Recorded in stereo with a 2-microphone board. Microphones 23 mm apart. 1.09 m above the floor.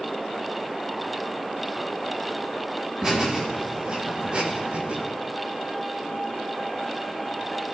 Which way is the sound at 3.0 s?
25° right (ahead or behind).